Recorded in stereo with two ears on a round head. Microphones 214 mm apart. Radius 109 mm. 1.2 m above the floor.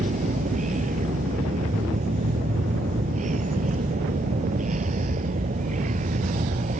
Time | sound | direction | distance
0.0 | a vehicle | 35° right (ahead or behind) | ?